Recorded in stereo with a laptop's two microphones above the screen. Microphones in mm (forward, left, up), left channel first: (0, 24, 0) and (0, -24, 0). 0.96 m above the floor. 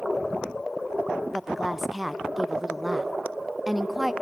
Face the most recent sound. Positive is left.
turn(degrees=-5)  # may be behind; listen again after turning